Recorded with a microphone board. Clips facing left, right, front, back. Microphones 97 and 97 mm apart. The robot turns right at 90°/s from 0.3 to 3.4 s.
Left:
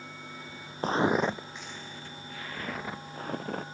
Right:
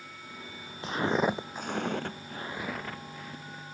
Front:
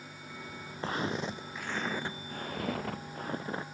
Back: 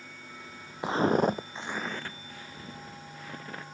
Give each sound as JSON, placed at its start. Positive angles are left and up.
{"t": 0.8, "sound": "footsteps", "azimuth_deg": 110}